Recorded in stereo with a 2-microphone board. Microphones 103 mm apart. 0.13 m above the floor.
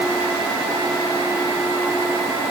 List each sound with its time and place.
Only background noise.